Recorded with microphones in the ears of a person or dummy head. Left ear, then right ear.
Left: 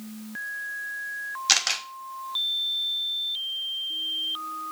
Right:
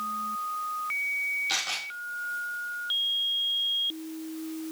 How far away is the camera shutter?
About 1.3 m.